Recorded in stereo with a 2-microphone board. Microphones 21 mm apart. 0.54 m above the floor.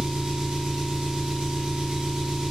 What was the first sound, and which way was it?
An engine running, 45° right (ahead or behind).